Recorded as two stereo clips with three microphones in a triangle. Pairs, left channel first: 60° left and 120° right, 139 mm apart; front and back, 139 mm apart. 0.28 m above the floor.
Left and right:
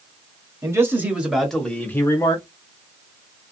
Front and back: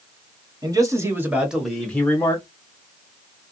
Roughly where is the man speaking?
Behind.